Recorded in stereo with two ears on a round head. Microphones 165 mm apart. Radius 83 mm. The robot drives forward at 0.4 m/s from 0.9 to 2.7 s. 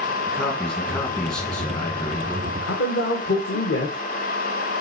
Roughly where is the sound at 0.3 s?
Centre.